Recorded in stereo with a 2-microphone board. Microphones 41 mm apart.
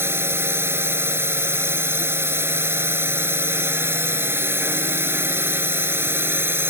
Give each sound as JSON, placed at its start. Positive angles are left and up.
{"t": 0.0, "sound": "a drone", "side_deg": -85}